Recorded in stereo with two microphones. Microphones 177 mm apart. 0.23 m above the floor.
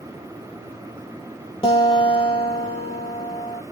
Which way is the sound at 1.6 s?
30° left (ahead or behind).